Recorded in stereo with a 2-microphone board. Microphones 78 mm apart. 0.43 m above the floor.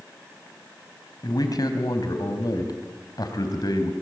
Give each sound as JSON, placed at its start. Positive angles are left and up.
{"t": 1.2, "sound": "a man speaking", "side_deg": 60, "distance_m": 3.0}